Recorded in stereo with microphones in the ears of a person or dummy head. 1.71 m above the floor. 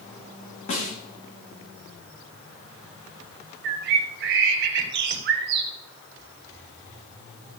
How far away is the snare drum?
About 2.5 m.